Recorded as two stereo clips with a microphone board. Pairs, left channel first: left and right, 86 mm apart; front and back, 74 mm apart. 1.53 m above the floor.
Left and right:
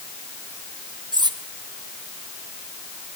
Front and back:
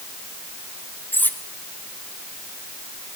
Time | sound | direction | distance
1.1 | cutlery clinking | 60° right | 1.7 m